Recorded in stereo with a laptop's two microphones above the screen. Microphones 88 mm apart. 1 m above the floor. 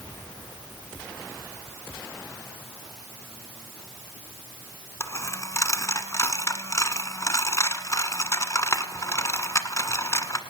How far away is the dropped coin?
About 1.2 m.